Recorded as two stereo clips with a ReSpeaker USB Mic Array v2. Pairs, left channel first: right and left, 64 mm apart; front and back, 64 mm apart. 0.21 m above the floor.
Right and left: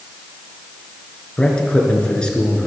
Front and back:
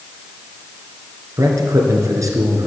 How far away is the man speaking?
About 2.5 m.